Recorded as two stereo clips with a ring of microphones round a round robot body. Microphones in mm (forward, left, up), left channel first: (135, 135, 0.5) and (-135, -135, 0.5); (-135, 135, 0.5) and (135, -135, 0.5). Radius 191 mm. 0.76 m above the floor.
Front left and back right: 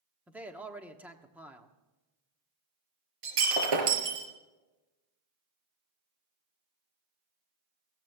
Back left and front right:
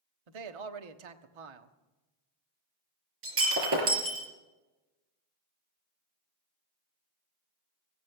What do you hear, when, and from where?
0.3 s a man speaking: 50° right, 1.3 m
3.2 s breaking glass: 105° right, 4 m